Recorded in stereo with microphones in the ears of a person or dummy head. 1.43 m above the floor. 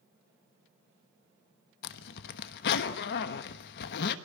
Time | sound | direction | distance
1.8 | a zipper | 60° left (ahead or behind) | 1.2 m